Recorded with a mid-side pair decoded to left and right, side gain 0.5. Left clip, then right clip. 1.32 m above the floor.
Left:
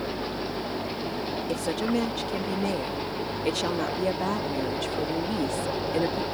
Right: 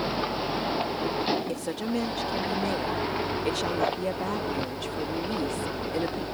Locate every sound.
1.5 s a woman speaking: 15° left